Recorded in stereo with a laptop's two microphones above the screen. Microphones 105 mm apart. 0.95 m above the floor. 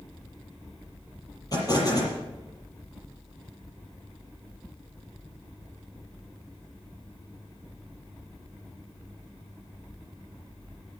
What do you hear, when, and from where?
1.5 s an explosion: 35° left (ahead or behind), 6.5 m